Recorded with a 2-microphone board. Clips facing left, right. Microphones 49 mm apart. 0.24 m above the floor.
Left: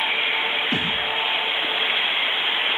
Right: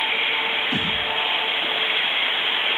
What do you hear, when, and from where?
0.7 s a thud: 45° left (ahead or behind), 8 m